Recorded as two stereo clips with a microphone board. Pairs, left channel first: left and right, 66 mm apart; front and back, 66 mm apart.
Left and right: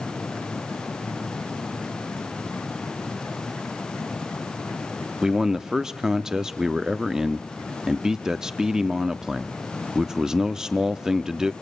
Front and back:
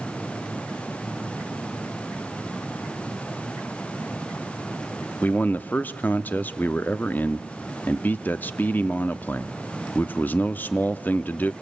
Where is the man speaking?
15° right, 0.7 m.